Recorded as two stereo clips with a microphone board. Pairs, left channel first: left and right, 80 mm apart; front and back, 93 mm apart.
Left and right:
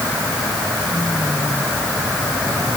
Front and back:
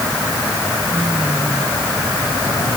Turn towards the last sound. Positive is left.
No sound to turn to.